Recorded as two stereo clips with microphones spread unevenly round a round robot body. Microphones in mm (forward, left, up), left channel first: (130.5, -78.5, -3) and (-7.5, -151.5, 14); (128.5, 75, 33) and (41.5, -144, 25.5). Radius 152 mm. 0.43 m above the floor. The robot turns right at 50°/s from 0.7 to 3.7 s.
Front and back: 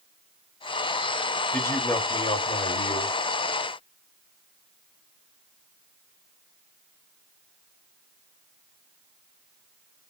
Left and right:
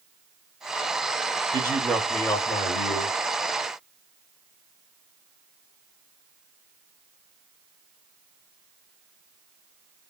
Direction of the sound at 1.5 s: 45° right.